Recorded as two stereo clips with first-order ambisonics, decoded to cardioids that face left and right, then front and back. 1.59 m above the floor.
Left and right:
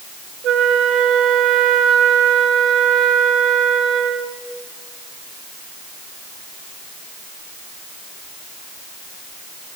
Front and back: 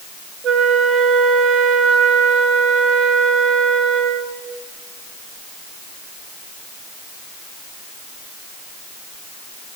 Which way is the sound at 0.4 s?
130° right.